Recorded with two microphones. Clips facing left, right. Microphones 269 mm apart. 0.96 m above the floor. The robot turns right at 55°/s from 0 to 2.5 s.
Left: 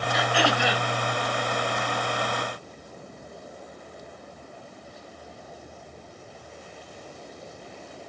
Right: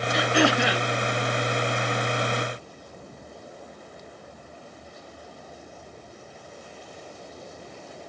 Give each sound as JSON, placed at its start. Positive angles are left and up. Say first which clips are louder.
{"t": 0.1, "sound": "throat clearing", "louder": "right 5 dB", "azimuth_deg": -140, "distance_m": 2.0}